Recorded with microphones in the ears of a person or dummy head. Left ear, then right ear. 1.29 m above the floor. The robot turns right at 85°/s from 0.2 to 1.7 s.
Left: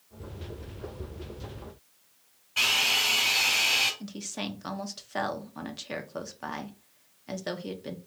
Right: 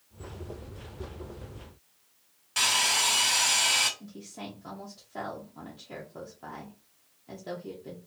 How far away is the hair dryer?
About 1.4 m.